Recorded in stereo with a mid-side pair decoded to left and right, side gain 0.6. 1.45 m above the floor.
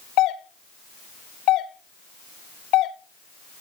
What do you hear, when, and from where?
0.2 s a doorbell: 65° left, 1.3 m